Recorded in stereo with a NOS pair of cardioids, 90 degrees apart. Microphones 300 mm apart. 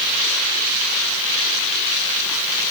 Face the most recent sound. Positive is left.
No sound to turn to.